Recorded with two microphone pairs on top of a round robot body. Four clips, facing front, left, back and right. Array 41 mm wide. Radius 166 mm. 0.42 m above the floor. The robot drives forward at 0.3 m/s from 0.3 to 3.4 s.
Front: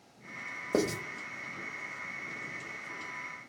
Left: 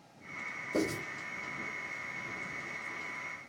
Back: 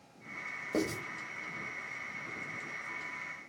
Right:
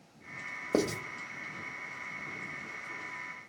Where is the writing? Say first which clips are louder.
Right 3 dB, front 4 dB; 60° right, 0.9 m; by 1.0 s 65° right, 0.9 m.